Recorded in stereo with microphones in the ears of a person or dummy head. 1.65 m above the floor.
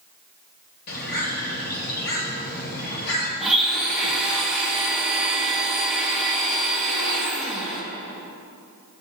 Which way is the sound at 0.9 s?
55° left (ahead or behind).